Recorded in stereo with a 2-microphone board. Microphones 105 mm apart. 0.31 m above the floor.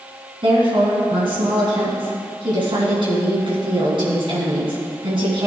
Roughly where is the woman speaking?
Right.